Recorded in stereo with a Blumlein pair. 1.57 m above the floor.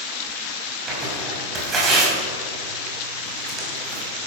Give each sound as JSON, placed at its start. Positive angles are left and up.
{"t": 0.9, "sound": "tearing paper", "azimuth_deg": -20, "distance_m": 5.0}